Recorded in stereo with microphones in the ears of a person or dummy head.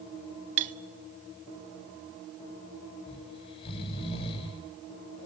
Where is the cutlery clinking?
25° right (ahead or behind), 0.6 m.